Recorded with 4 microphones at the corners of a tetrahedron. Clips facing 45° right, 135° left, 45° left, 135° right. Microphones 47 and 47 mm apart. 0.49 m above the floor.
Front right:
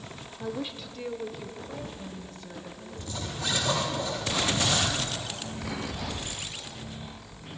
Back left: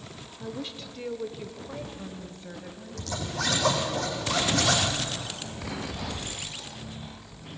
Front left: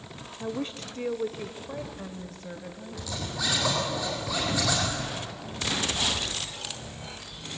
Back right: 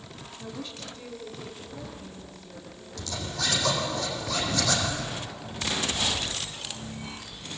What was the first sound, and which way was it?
A woman speaking, 5° left.